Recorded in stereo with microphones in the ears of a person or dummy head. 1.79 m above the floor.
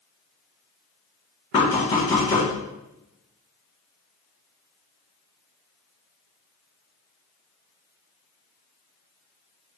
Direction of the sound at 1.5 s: 20° left (ahead or behind).